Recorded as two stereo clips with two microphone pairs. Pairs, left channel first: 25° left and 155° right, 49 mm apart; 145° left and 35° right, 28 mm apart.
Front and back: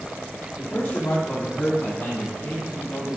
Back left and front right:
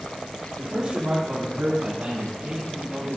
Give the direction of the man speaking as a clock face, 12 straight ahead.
1 o'clock.